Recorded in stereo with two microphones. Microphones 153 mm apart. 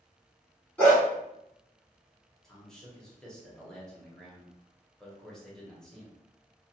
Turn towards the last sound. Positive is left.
turn(degrees=5)  # may be behind; listen again after turning